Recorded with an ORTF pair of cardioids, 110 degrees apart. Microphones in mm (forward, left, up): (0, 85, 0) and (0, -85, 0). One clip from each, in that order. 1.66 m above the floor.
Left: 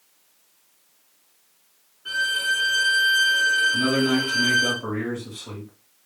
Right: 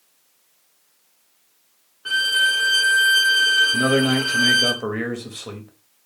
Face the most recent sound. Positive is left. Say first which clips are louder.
# right 3 dB
turn(degrees=-65)